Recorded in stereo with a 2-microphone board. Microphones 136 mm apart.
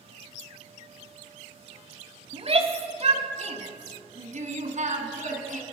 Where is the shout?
45° right (ahead or behind), 2 m; by 5.6 s 70° right (ahead or behind), 4 m.